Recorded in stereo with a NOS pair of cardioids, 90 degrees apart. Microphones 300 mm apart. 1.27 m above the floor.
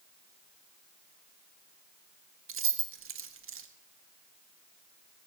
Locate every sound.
2.5 s keys jangling: 50° right, 1.4 m